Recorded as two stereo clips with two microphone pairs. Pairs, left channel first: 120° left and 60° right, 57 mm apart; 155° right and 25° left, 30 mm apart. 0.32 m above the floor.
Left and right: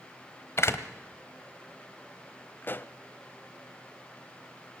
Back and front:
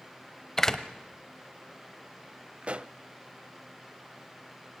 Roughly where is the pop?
Left.